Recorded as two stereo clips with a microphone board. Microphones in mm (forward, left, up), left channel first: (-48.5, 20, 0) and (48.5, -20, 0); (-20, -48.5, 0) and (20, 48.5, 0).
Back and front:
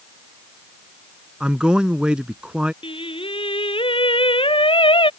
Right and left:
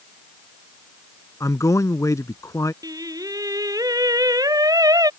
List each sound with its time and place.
1.4 s a man speaking: 95° right
2.8 s singing: 125° left